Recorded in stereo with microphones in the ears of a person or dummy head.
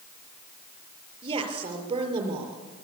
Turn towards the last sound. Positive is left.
turn(degrees=-30)  # may be behind; listen again after turning